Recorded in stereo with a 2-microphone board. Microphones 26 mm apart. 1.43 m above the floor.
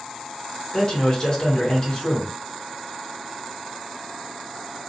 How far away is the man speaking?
About 1.0 m.